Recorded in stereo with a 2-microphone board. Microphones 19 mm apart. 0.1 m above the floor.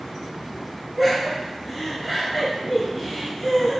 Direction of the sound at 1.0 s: 5° left (ahead or behind).